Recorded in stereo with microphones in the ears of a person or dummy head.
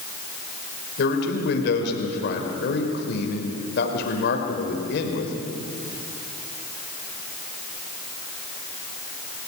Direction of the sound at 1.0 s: 65° left (ahead or behind).